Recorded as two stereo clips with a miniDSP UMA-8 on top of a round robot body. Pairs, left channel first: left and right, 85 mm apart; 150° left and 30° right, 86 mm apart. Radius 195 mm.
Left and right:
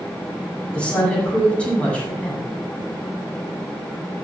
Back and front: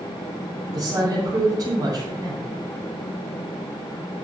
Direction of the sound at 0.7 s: 10° left.